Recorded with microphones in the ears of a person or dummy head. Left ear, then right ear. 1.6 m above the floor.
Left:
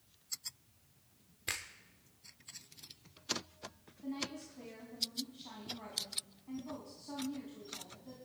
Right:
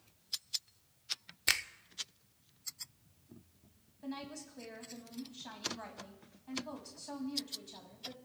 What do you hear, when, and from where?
1.5 s a finger snap: 35° right (ahead or behind), 0.6 m
4.0 s a woman speaking: 75° right (ahead or behind), 2.5 m